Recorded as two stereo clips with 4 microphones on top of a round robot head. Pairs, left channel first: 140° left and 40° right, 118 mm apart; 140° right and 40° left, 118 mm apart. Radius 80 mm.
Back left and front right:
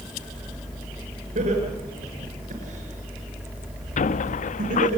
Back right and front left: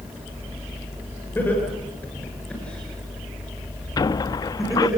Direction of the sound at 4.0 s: 160° left.